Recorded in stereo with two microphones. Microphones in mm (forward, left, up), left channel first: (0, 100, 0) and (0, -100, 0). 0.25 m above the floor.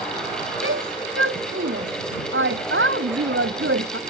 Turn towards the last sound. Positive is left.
turn(degrees=-80)